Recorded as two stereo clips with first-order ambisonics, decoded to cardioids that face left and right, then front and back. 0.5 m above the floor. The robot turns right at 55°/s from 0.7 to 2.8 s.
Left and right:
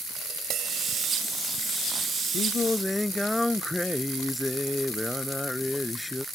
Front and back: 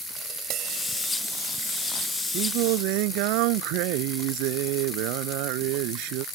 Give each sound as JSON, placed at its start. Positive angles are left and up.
{"t": 0.2, "sound": "tapping", "azimuth_deg": -140}
{"t": 2.3, "sound": "singing", "azimuth_deg": 150}